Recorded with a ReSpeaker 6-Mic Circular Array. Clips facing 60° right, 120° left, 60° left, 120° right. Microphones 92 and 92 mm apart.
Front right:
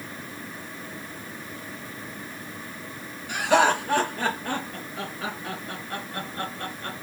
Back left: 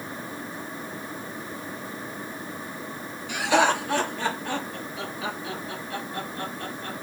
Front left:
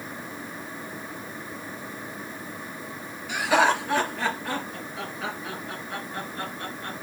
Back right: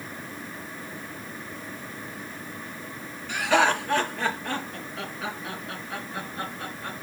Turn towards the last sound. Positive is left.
turn(degrees=-40)